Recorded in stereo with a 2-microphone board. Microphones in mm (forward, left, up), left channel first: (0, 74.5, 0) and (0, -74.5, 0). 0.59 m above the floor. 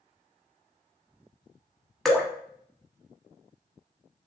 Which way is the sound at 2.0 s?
Centre (ahead or behind).